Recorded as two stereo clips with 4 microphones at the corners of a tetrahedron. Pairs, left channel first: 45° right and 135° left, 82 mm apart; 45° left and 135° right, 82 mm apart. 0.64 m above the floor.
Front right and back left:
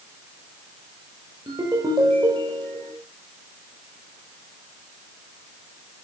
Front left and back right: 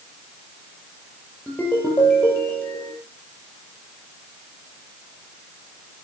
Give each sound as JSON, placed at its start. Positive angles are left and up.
{"t": 1.5, "sound": "a ringtone", "azimuth_deg": 110, "distance_m": 8.0}